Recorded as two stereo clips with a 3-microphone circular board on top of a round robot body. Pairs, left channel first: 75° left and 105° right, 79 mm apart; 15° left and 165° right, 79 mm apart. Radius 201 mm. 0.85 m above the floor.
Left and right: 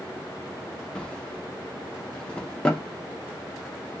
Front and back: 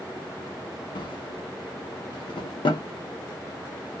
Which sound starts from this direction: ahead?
A drawer, at 0.9 s.